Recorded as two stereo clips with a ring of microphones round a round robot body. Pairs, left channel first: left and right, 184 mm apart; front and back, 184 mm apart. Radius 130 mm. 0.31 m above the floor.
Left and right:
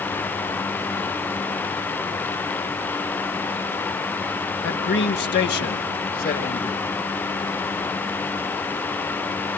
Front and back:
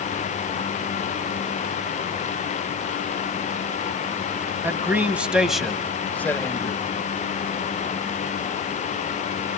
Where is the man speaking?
105° left, 2 m; by 6.8 s 65° left, 1.5 m.